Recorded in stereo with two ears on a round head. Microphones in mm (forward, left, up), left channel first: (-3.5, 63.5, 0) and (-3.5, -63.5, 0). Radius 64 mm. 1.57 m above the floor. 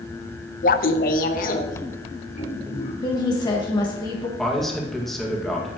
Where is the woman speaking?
30° left (ahead or behind), 1.3 m.